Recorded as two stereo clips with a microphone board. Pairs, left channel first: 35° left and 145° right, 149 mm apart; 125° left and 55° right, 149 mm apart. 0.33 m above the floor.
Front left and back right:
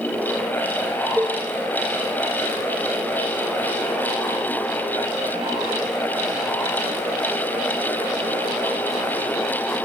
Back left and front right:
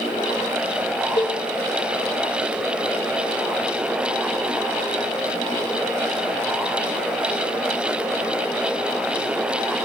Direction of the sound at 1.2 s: 135° left.